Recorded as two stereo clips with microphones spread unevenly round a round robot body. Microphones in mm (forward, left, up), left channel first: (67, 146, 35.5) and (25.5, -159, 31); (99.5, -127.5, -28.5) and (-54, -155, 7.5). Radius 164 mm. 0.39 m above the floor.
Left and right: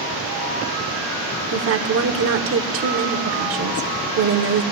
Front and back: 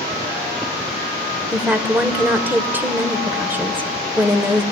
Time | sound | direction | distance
1.5 | a woman speaking | 80° right | 1.0 m